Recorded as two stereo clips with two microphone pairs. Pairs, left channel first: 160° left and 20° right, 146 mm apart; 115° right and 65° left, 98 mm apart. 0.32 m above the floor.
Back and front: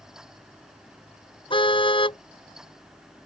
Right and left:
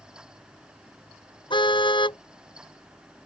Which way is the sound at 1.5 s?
150° right.